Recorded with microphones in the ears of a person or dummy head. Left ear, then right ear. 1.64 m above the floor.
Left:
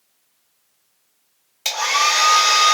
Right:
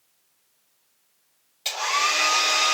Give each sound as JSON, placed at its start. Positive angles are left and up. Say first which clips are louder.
{"t": 1.6, "sound": "a hair dryer", "louder": "left 5 dB", "side_deg": 30, "distance_m": 1.5}